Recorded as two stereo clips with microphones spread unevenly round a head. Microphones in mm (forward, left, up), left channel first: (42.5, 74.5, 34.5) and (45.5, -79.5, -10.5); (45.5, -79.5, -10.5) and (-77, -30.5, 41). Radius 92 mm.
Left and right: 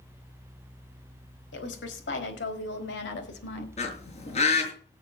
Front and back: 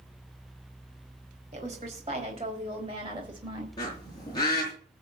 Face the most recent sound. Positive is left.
turn(degrees=50)